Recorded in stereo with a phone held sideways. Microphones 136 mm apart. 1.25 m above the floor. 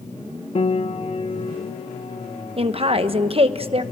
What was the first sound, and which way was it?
A piano, 45° left (ahead or behind).